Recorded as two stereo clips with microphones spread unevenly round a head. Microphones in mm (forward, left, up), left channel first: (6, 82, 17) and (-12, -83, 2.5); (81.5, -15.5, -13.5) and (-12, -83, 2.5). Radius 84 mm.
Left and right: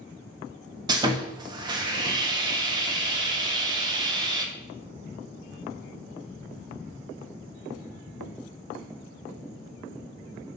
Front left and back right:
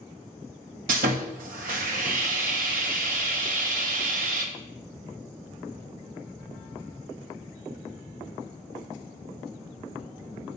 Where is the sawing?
160° right, 1.2 m.